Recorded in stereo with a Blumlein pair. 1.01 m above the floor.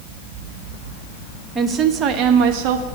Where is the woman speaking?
15° right, 1.0 m; by 2.9 s 50° right, 1.2 m.